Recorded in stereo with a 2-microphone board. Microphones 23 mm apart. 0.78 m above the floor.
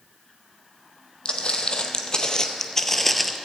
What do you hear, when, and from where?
1.2 s footsteps: 45° left (ahead or behind), 1.3 m; by 3.4 s 5° right (ahead or behind), 0.7 m